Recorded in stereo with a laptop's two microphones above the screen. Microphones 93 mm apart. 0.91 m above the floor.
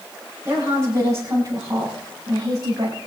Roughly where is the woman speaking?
Right.